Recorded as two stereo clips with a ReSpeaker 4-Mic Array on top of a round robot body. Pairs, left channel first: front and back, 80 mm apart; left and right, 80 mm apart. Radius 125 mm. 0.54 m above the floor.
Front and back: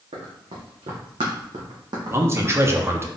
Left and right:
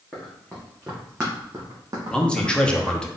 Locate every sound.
0.1 s running footsteps: 165° left, 2 m; by 3.0 s 105° right, 1.7 m
2.1 s a man speaking: 160° left, 1.0 m